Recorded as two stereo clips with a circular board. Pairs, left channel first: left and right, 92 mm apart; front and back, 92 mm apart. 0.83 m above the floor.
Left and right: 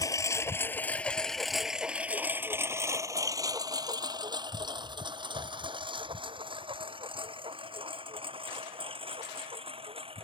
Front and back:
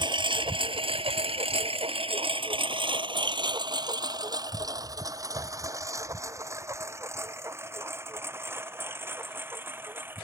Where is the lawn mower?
145° left; by 10.2 s 110° right.